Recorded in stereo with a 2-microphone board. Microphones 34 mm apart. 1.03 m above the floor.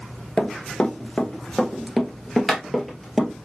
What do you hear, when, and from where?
0.4 s running footsteps: 25° left (ahead or behind), 1.1 m; by 3.3 s centre (ahead or behind), 1.7 m